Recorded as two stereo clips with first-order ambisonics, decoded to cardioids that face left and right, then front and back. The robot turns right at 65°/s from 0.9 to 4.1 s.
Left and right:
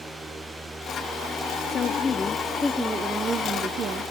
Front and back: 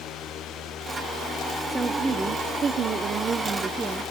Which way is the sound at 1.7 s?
105° left.